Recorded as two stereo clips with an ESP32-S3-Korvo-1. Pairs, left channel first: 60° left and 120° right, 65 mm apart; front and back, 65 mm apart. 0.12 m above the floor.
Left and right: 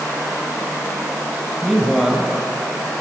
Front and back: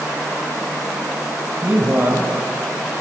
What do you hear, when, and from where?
1.6 s a man speaking: 155° left, 1.5 m